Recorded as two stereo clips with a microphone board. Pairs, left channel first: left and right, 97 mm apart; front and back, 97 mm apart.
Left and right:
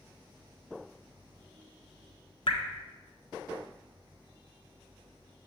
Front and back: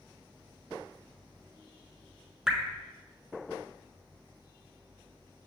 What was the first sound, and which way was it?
Dripping, 100° left.